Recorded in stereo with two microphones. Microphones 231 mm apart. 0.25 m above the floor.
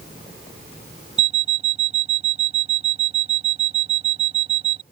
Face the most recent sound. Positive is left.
turn(degrees=-25)  # may be behind; listen again after turning